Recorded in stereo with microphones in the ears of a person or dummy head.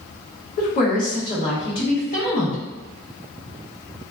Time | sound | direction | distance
0.6 | a woman speaking | 55° left (ahead or behind) | 1.5 m